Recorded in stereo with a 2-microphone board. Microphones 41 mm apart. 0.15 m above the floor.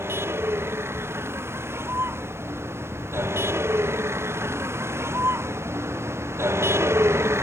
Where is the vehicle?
75° right (ahead or behind); by 7.5 s 85° right.